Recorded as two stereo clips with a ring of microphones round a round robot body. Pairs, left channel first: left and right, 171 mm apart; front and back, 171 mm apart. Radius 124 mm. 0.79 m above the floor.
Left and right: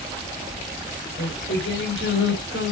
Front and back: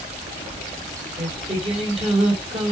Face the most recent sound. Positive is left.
turn(degrees=125)